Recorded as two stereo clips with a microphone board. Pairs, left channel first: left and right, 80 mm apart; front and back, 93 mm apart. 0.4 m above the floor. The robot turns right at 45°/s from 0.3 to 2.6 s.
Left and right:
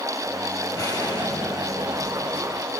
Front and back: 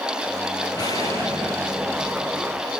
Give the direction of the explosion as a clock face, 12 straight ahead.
11 o'clock.